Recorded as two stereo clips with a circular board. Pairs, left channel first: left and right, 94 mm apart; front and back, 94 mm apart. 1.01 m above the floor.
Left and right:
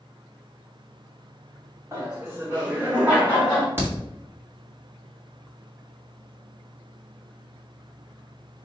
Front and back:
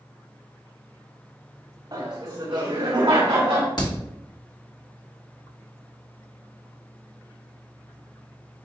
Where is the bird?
I don't hear a bird.